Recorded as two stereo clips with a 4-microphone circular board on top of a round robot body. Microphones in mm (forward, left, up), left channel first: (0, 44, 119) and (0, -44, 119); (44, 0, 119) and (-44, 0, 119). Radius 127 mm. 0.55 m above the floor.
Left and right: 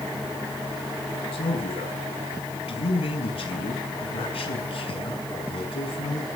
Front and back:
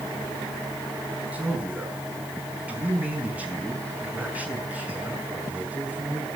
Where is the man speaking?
105° left, 5.5 m.